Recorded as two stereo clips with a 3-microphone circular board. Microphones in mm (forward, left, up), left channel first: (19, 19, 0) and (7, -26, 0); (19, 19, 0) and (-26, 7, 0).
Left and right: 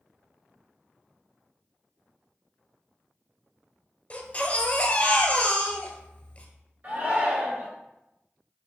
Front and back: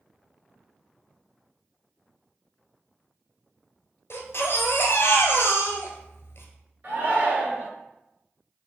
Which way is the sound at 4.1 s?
20° left.